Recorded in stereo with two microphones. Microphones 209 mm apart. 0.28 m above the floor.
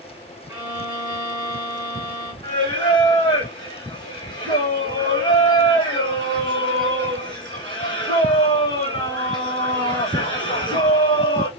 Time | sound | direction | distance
0.5 | a violin | 20° right (ahead or behind) | 3.5 m
2.4 | singing | 55° right (ahead or behind) | 2.0 m